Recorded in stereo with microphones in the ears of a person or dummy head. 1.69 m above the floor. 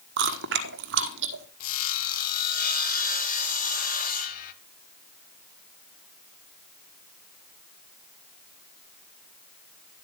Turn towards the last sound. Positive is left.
turn(degrees=50)  # may be behind; listen again after turning